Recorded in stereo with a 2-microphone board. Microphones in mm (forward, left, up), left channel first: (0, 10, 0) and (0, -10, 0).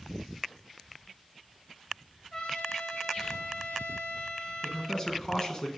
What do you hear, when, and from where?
2.3 s a trumpet: 55° left (ahead or behind), 1.7 m
4.6 s a man speaking: 35° left (ahead or behind), 1.6 m